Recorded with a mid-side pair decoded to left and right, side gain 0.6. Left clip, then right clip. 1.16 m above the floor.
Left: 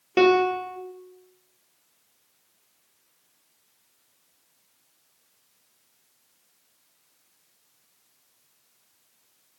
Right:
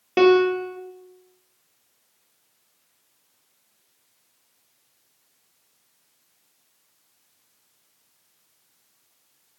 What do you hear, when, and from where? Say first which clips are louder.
0.2 s a piano: right 2 dB; straight ahead, 0.7 m